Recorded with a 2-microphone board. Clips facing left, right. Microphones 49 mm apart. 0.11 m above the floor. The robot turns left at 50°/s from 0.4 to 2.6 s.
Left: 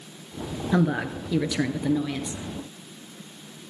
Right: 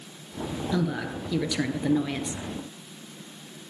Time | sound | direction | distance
0.7 | a woman speaking | 50° left | 1.5 m